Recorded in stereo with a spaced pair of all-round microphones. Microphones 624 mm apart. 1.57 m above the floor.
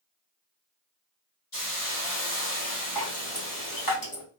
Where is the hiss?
45° left (ahead or behind), 2 m.